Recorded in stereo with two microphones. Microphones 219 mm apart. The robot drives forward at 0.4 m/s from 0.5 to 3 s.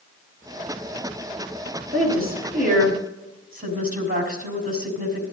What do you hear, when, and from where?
1.9 s a woman speaking: 45° right (ahead or behind), 4.5 m; by 5.2 s 40° right (ahead or behind), 4.5 m